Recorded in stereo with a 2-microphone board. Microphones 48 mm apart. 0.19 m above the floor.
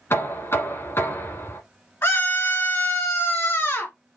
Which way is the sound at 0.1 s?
55° left (ahead or behind).